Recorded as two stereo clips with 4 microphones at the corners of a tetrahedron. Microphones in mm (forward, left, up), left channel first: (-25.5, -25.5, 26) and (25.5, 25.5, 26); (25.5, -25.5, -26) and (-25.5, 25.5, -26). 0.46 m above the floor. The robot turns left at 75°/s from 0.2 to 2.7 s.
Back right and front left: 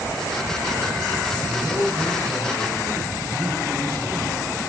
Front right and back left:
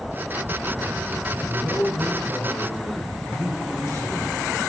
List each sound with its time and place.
1.4 s a man speaking: 5° left, 5 m; by 4.7 s 90° right, 5 m